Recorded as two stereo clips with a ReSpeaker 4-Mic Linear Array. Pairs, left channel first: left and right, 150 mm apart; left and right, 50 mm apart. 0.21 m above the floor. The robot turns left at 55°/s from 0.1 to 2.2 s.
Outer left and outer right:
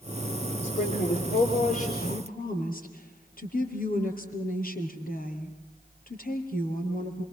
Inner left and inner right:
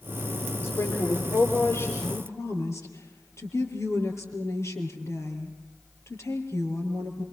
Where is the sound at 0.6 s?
130° left, 3.5 m; by 1.9 s 60° left, 3.5 m.